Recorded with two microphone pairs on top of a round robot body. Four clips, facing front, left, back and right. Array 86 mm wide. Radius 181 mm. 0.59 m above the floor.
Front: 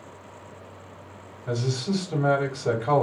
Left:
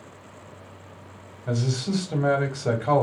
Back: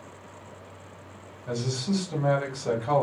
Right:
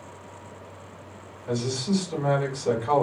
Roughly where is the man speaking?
Ahead left.